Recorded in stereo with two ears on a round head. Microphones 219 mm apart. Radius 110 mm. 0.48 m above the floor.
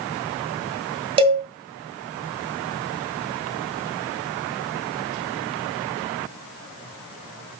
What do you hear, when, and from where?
1.2 s a cowbell: 25° right (ahead or behind), 2 m